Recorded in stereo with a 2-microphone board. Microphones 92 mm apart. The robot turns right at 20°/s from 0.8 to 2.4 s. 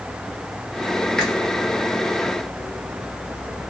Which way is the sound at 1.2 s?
5° left (ahead or behind).